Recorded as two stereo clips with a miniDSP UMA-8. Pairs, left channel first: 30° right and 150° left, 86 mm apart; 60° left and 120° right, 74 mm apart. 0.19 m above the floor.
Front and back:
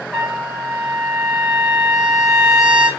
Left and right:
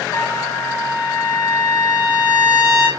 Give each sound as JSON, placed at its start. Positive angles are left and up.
{"t": 0.1, "sound": "a trumpet", "azimuth_deg": 65, "distance_m": 4.0}